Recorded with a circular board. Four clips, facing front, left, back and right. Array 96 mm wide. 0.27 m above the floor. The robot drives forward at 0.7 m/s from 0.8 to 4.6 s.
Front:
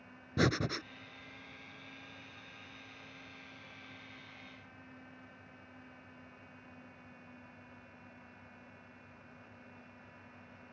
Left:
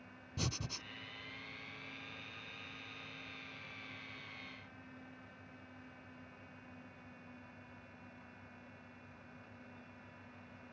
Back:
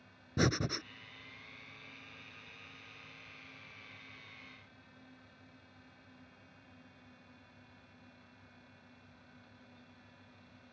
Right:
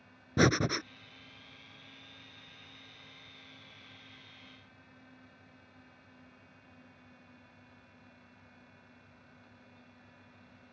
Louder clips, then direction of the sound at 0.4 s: Right 17 dB, front 1 dB; 80° right.